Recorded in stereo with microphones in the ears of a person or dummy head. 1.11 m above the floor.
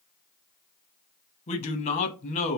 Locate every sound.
1.5 s a man speaking: 30° left (ahead or behind), 0.8 m